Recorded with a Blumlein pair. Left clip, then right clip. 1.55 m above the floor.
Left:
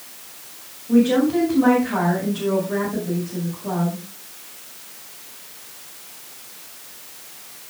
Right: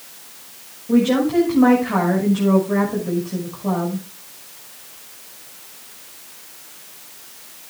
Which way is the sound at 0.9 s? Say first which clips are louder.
Even; 25° right.